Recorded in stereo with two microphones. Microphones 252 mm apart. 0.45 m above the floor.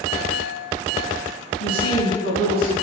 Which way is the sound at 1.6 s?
60° left (ahead or behind).